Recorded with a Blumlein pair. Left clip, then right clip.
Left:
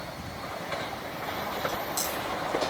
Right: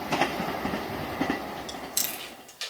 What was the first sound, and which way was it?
Chewing, 65° right.